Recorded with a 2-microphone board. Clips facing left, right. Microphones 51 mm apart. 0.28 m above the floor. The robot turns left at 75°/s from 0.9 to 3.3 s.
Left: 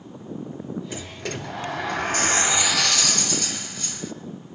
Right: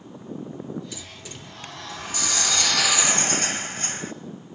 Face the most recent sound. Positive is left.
turn(degrees=-40)